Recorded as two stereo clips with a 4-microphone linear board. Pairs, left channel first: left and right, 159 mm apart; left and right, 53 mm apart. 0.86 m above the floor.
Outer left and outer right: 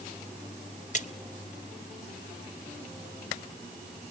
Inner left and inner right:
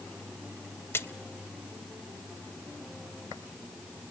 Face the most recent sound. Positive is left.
turn(degrees=50)  # may be behind; listen again after turning